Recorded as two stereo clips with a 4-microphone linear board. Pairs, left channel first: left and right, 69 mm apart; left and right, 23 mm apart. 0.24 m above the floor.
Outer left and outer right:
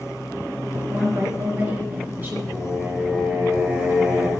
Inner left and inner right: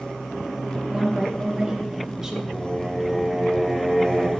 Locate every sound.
0.9 s a woman speaking: 35° right (ahead or behind), 4 m; by 2.4 s 25° right (ahead or behind), 5.5 m
2.5 s singing: 15° right (ahead or behind), 3.5 m